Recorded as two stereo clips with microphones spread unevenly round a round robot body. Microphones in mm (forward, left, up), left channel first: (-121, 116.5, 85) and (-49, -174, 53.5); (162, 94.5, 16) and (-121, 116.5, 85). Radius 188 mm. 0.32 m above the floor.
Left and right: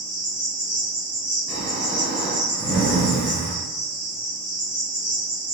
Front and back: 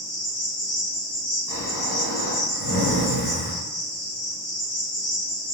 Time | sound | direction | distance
0.0 | an insect | 15° right | 1.6 m
1.5 | snoring | 80° left | 1.5 m